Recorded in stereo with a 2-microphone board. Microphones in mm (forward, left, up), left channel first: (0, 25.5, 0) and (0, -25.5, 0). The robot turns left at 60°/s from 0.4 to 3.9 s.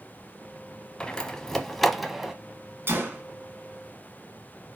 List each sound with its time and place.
1.0 s a door slam: 15° left (ahead or behind), 0.7 m; by 2.3 s 10° right (ahead or behind), 0.7 m
2.9 s a gunshot: 40° right (ahead or behind), 1.5 m; by 3.2 s 35° right (ahead or behind), 1.5 m